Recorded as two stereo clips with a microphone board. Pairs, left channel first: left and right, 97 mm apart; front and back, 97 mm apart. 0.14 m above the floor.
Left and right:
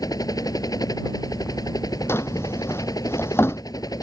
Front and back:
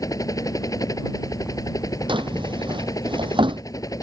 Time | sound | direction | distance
0.0 | a helicopter | 45° left | ?
2.1 | a drawer | 155° left | ?